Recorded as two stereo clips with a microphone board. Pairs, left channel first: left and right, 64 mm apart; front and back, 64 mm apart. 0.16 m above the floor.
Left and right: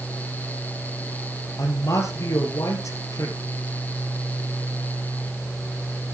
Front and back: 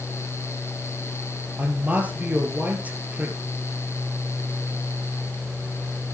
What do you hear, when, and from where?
1.6 s a man speaking: 115° left, 3.5 m